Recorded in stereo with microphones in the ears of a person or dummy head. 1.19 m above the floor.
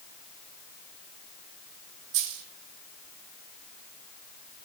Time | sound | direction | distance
2.1 | a dropped coin | 65° right (ahead or behind) | 3 m